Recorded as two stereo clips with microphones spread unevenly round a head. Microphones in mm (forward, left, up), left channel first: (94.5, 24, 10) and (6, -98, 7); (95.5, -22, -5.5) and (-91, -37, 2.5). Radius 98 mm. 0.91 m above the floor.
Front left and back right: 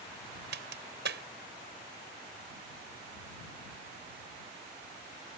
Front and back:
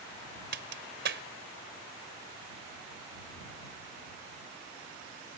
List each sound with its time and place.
0.5 s a crack: 145° right